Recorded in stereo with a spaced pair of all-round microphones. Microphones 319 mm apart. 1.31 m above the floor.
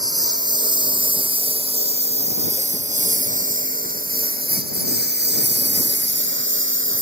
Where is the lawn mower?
10° right (ahead or behind); by 7.0 s 40° right (ahead or behind).